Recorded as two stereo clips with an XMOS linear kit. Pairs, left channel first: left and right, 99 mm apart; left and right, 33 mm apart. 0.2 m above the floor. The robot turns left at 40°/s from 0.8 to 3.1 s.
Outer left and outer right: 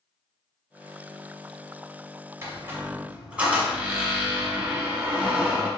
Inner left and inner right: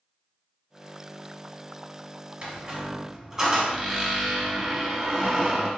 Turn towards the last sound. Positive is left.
turn(degrees=-15)  # may be behind; listen again after turning